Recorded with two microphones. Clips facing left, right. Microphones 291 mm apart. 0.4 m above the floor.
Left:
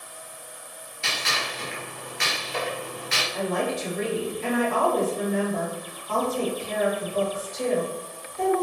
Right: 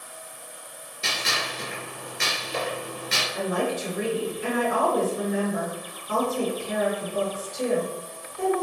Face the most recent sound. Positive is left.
turn(degrees=-10)  # may be behind; listen again after turning